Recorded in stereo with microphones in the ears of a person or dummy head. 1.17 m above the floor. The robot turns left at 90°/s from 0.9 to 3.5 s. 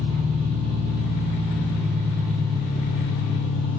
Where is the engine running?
60° right, 0.8 m; by 3.8 s 70° left, 0.8 m.